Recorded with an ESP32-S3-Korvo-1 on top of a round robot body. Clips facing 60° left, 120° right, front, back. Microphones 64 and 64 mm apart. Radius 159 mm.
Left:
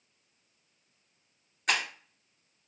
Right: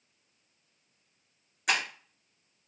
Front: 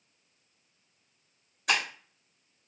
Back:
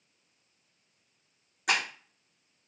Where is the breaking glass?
160° left, 2 m.